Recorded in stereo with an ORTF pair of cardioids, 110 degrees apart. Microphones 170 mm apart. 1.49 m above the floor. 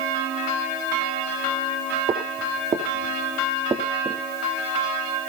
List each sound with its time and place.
2.1 s footsteps: 40° right, 5 m; by 4.2 s 25° right, 3.5 m